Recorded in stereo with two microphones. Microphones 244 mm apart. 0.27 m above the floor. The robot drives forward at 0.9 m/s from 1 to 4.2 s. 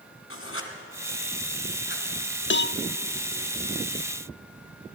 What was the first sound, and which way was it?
Writing, 60° left (ahead or behind).